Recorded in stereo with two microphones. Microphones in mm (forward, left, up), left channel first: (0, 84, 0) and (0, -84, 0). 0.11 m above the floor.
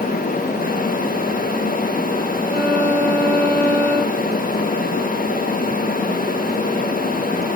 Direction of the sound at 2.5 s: 5° left (ahead or behind).